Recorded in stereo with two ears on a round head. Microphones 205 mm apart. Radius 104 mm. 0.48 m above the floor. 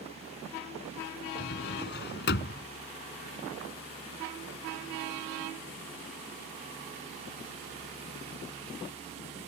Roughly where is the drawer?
Left.